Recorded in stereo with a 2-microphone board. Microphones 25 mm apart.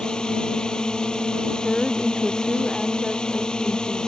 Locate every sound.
0.0 s a drone: 35° left (ahead or behind)
1.6 s a woman speaking: 20° left (ahead or behind)